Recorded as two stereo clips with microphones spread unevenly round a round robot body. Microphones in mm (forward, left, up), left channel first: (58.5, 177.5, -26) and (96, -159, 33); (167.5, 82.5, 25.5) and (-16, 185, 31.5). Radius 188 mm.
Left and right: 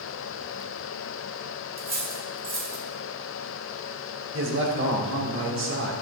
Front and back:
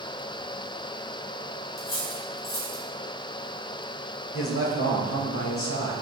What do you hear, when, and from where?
1.8 s cutlery clinking: 20° right, 3.5 m
4.3 s a man speaking: 25° right, 3 m